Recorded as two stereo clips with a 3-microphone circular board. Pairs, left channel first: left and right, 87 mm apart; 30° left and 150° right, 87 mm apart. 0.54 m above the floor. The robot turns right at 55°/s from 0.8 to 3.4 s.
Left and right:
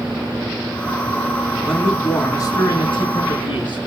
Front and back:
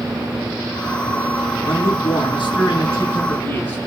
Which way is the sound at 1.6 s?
5° left.